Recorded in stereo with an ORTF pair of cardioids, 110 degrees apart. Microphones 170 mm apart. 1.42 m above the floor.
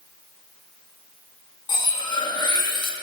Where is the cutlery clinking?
30° left, 1.6 m.